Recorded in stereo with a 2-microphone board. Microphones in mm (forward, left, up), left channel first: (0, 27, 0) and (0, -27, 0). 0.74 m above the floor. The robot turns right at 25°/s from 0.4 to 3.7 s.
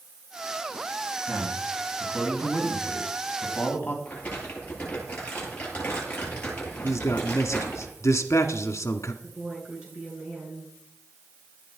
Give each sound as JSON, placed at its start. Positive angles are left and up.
{"t": 1.3, "sound": "a man speaking", "azimuth_deg": -30, "distance_m": 4.5}
{"t": 4.0, "sound": "crumpling", "side_deg": 25, "distance_m": 9.5}
{"t": 6.8, "sound": "a man speaking", "side_deg": 60, "distance_m": 1.5}
{"t": 9.2, "sound": "a woman speaking", "side_deg": -20, "distance_m": 8.5}